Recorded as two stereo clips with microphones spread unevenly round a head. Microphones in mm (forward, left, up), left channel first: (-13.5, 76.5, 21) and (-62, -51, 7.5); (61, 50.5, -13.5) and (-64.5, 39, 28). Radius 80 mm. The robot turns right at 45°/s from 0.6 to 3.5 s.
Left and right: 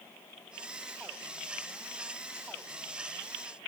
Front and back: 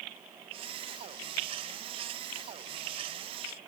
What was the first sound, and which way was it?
Only background noise.